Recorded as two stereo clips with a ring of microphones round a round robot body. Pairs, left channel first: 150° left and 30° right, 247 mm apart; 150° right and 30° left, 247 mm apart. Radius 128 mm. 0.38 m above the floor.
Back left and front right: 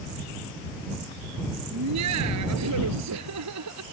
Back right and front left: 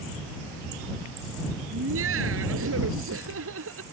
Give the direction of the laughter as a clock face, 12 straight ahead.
12 o'clock.